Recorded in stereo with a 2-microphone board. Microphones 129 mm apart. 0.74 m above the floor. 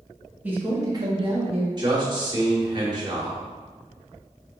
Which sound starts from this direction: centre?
A man speaking, at 0.4 s.